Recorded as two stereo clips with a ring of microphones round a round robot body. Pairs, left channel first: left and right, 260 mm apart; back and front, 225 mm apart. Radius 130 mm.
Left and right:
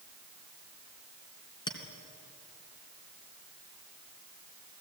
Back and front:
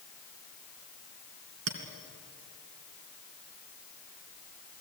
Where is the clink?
15° left, 3 m.